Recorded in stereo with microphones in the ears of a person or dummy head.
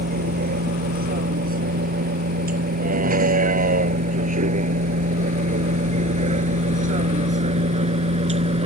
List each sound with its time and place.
0.0 s a vehicle: 55° right (ahead or behind); by 8.7 s 40° right (ahead or behind)